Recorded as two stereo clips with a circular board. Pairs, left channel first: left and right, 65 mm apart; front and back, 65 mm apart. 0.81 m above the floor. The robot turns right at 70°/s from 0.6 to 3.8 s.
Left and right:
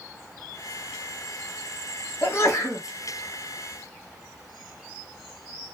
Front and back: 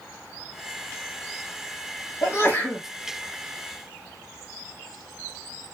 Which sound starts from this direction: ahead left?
A sneeze, at 2.2 s.